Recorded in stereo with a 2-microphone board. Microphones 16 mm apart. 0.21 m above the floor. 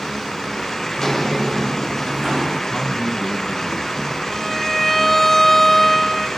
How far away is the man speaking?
About 2 m.